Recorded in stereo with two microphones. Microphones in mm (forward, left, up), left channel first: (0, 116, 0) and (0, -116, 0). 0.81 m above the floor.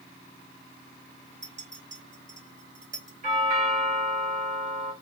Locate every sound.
1.4 s a clink: 50° right (ahead or behind), 1.7 m
3.2 s a doorbell: 35° right (ahead or behind), 2.5 m